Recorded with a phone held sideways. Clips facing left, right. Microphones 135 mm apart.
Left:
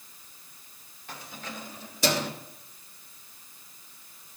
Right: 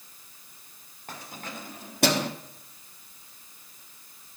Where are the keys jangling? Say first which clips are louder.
Right 1 dB; 45° right (ahead or behind), 2 m; by 2.3 s 70° right (ahead or behind), 1.4 m.